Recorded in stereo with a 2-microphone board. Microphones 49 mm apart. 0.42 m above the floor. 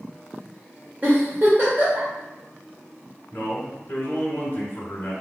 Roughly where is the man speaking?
Left.